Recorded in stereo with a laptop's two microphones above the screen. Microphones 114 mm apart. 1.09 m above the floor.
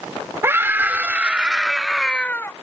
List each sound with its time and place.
0.4 s a scream: 20° right (ahead or behind); by 2.5 s 20° left (ahead or behind)